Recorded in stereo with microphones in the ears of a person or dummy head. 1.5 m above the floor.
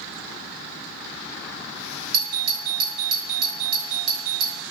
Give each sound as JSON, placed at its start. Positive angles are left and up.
{"t": 2.1, "sound": "a doorbell", "side_deg": -55, "distance_m": 1.3}